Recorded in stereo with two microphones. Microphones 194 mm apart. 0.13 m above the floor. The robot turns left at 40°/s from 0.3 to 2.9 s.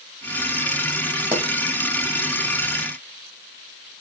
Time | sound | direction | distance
1.3 | a pop | 10° right (ahead or behind) | 3 m